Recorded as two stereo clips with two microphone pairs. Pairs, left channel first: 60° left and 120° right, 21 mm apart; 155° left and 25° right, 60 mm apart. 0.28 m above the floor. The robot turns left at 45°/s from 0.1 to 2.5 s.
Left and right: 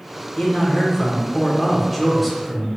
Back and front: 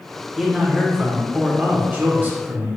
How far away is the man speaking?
About 1.0 m.